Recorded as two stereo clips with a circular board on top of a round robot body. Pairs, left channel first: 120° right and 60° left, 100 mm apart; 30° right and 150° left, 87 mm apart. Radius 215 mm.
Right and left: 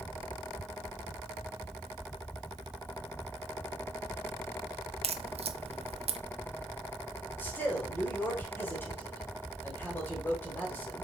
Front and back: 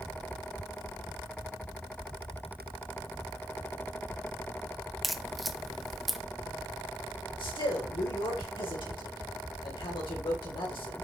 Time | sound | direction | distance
5.0 | a crack | 60° left | 0.7 m
7.4 | a man speaking | 50° right | 3.5 m